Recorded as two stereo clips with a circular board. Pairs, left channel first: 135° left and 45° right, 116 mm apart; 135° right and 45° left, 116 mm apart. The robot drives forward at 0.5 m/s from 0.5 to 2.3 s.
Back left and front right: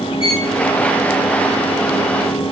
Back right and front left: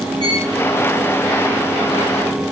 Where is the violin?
170° left, 9.5 m.